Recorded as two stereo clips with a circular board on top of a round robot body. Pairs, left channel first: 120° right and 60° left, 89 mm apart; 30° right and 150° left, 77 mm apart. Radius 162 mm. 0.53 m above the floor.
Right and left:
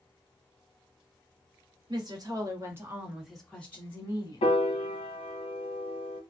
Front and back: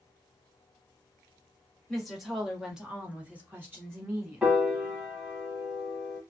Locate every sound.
1.9 s a woman speaking: 60° left, 1.6 m; by 4.5 s 155° right, 1.5 m
4.4 s a piano: 130° right, 0.7 m